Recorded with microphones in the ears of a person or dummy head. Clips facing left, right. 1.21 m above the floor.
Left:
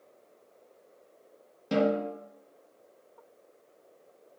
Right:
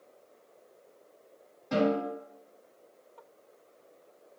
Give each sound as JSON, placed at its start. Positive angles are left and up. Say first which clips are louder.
{"t": 1.7, "sound": "a snare drum", "louder": "left 1 dB", "side_deg": 45, "distance_m": 1.1}